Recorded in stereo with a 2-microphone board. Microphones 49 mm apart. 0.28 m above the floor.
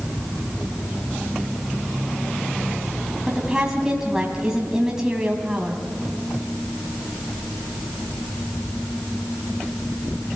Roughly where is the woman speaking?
Centre.